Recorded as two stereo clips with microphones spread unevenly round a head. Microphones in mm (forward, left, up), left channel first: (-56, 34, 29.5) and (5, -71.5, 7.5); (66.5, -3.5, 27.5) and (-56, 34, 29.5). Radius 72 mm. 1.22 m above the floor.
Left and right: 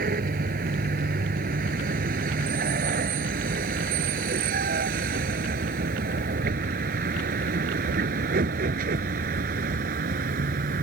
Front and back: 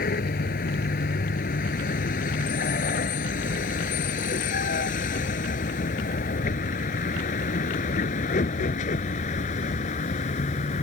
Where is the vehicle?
40° right; by 10.8 s 60° right.